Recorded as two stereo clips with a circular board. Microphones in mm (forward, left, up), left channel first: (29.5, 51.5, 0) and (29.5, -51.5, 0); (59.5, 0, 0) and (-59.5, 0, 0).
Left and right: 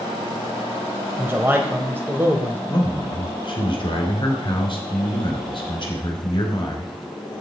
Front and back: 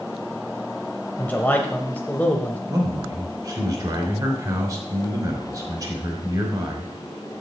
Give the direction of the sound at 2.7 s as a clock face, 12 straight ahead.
8 o'clock.